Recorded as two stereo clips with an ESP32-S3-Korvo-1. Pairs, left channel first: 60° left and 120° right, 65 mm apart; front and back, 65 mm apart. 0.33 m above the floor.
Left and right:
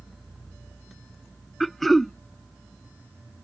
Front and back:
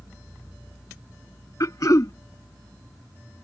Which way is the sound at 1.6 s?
30° right.